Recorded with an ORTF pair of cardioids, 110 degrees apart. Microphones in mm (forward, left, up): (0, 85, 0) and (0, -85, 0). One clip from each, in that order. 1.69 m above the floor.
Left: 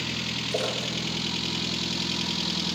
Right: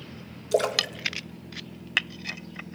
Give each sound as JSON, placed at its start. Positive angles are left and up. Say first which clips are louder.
{"t": 0.5, "sound": "a splash", "louder": "right 7 dB", "azimuth_deg": -50, "distance_m": 1.8}